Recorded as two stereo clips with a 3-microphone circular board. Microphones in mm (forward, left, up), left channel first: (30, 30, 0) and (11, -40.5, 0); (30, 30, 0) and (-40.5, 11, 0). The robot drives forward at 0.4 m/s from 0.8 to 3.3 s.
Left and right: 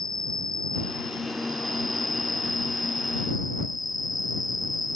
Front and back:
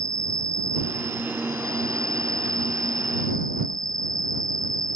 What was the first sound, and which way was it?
An insect, 160° left.